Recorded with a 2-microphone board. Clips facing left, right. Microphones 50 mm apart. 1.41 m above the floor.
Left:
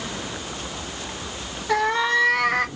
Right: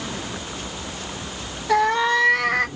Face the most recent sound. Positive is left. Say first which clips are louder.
# right 2 dB
turn(degrees=0)  # may be behind; listen again after turning